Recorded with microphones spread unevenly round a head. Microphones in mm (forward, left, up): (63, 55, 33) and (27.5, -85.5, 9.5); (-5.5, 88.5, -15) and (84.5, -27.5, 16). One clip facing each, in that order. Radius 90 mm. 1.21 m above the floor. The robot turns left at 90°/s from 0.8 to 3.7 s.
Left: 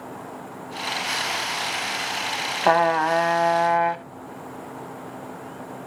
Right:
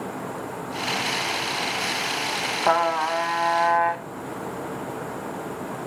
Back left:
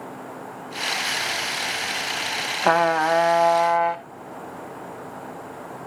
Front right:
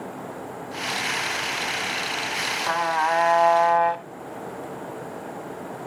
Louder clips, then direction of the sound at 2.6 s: Left 3 dB, back left 6 dB; 130° left.